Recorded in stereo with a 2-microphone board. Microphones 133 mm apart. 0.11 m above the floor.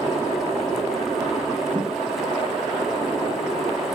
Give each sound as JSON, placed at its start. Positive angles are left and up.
{"t": 1.7, "sound": "a whoosh", "side_deg": -35, "distance_m": 8.5}